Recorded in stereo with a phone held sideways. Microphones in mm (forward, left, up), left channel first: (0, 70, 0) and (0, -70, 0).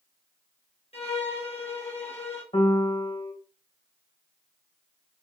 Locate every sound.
0.9 s a violin: 45° left (ahead or behind), 1.2 m
2.5 s a piano: 40° left (ahead or behind), 1.0 m